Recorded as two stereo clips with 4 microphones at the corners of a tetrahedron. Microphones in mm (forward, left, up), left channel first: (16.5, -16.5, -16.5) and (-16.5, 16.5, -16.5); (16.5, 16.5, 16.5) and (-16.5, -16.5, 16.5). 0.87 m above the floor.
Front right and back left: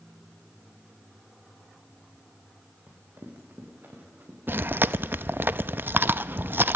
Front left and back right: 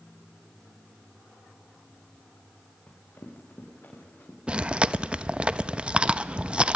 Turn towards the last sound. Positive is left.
turn(degrees=165)